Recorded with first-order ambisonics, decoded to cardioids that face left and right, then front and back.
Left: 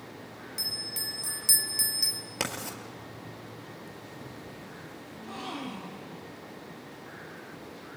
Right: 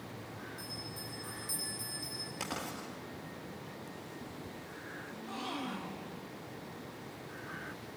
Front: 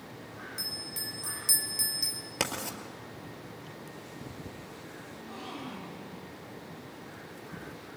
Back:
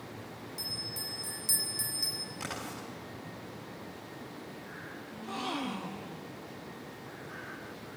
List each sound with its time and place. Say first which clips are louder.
0.6 s a bell: left 15 dB, even; 75° left, 2.5 m
2.4 s writing: left 7 dB, front 6 dB; 35° left, 4.5 m
5.1 s a gasp: left 3 dB, back 7 dB; 175° left, 1.2 m